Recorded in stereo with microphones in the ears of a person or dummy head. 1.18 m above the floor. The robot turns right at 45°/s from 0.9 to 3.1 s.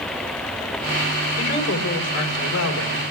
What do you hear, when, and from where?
1.4 s a woman speaking: 50° left, 4 m; by 3.0 s 125° left, 4 m